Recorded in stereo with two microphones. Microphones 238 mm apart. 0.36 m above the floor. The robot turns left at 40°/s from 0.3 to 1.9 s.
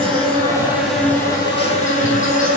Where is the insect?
155° right, 4 m; by 2.6 s 145° left, 4 m.